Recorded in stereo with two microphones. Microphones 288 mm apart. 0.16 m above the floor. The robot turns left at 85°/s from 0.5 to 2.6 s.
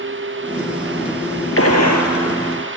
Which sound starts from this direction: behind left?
A gunshot, at 1.6 s.